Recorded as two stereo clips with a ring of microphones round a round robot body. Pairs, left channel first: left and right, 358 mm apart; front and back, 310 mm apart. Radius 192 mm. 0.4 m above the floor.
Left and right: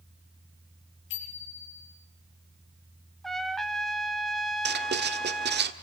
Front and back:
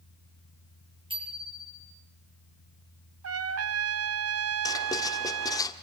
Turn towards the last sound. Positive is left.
turn(degrees=-65)